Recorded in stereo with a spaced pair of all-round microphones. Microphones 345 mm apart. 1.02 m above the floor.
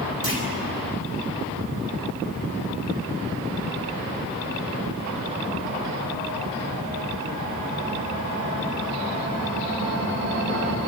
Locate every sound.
0.2 s a clunk: 85° left, 5 m